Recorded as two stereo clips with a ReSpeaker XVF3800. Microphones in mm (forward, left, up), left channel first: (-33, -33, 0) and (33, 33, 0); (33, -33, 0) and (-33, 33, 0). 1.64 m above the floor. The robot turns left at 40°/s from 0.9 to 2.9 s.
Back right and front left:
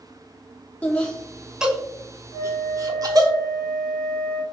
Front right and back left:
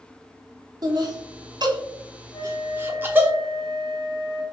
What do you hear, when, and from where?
0.8 s laughter: 155° left, 0.7 m; by 3.3 s 75° left, 0.7 m
2.3 s a flute: 35° right, 1.0 m; by 4.4 s 60° right, 1.0 m